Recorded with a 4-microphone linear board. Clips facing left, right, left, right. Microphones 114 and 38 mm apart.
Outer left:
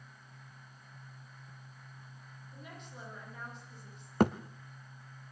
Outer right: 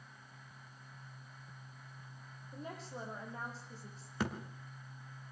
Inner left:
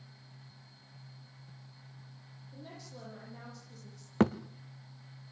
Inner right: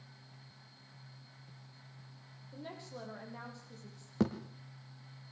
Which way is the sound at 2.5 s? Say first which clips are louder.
Outer right 5 dB, inner right 3 dB; 35° right (ahead or behind).